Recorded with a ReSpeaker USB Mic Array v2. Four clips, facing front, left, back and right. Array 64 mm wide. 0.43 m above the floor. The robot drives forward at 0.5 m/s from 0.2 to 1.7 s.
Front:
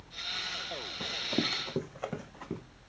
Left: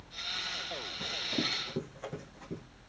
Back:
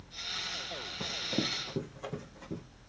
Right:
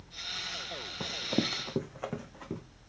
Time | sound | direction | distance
1.0 | running footsteps | 95° right | 0.8 m